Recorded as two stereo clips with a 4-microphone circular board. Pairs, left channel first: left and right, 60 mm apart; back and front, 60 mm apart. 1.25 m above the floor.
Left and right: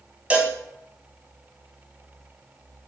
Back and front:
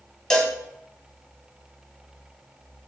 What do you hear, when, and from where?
0.3 s a cowbell: 115° right, 1.2 m